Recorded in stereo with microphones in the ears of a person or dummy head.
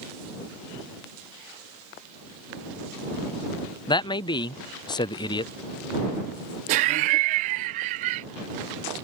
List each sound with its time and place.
3.9 s a man speaking: 20° left (ahead or behind)
6.7 s laughter: 25° right (ahead or behind)